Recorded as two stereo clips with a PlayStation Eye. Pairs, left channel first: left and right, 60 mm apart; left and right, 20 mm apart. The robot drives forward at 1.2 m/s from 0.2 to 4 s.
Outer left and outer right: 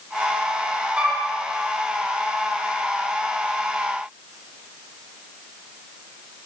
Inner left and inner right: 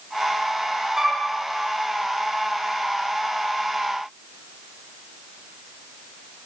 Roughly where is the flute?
Right.